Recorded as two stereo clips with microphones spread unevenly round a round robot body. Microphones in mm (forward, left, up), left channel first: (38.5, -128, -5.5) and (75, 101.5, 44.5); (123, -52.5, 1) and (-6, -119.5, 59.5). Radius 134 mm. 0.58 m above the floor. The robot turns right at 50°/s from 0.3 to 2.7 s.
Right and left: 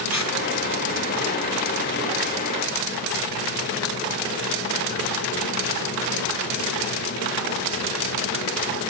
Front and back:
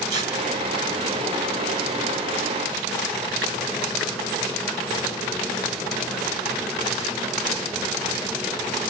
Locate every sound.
0.1 s tearing paper: 165° left, 4.5 m